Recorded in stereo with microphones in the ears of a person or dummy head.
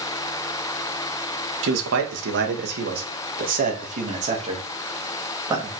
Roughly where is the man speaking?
Right.